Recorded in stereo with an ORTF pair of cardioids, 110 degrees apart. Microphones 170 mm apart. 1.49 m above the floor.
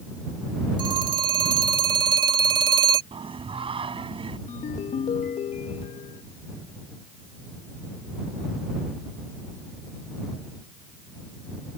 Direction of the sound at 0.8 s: 30° right.